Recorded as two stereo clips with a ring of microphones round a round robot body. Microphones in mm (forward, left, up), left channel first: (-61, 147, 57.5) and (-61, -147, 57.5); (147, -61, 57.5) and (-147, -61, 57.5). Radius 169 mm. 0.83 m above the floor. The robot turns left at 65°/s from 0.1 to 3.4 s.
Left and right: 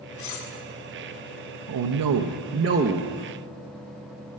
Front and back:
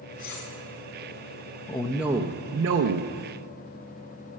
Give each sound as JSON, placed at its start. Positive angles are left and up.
{"t": 0.2, "sound": "cutlery clinking", "azimuth_deg": 70, "distance_m": 1.3}
{"t": 1.7, "sound": "a man speaking", "azimuth_deg": -70, "distance_m": 0.6}